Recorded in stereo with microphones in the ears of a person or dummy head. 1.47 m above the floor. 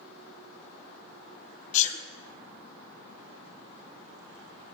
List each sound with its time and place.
1.7 s a sneeze: 40° left (ahead or behind), 0.9 m